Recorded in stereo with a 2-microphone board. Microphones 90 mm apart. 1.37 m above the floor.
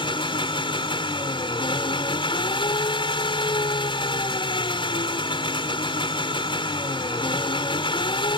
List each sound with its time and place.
0.0 s an engine running: 70° left (ahead or behind)